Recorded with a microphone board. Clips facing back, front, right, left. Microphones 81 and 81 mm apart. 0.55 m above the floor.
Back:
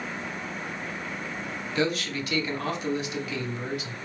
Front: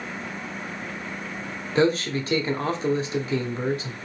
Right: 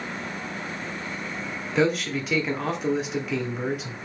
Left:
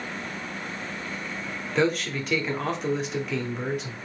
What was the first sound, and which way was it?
A man speaking, 5° right.